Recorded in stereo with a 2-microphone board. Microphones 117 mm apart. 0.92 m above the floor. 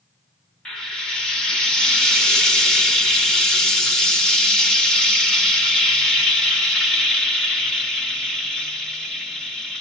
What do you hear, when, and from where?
0.7 s frying: 5° left (ahead or behind), 1.2 m